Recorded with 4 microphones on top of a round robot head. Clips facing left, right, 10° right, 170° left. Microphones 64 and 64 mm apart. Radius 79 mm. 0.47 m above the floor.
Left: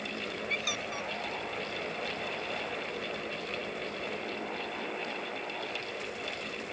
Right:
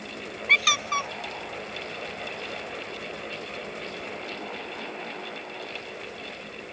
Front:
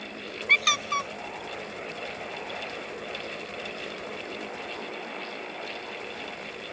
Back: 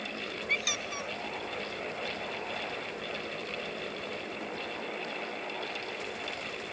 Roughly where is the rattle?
I don't hear a rattle.